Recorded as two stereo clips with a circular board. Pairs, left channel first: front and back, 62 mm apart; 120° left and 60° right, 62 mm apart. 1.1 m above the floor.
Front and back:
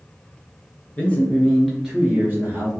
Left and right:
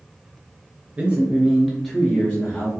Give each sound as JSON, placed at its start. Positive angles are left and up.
{"t": 1.0, "sound": "a man speaking", "azimuth_deg": -25, "distance_m": 0.8}